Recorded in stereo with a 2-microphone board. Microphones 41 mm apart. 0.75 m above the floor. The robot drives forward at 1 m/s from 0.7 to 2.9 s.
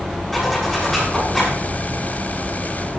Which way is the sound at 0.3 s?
10° left (ahead or behind).